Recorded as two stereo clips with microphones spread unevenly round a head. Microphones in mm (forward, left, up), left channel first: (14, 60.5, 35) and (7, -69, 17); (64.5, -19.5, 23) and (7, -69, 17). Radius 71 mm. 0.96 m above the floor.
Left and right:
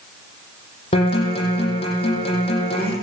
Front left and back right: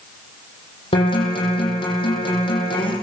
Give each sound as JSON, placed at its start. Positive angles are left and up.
{"t": 0.9, "sound": "a guitar", "azimuth_deg": 40, "distance_m": 9.0}